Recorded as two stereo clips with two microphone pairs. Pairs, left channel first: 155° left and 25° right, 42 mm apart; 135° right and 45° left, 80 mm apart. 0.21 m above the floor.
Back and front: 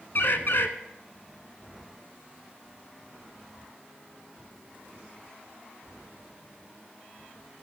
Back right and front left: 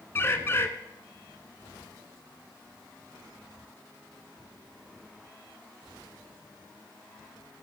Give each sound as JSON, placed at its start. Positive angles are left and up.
{"t": 0.1, "sound": "a bird", "azimuth_deg": 170, "distance_m": 0.7}